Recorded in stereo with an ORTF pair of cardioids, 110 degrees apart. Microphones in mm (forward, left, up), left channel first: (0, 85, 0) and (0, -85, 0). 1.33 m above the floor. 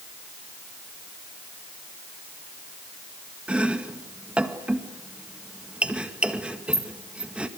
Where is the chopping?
5° right, 1.9 m.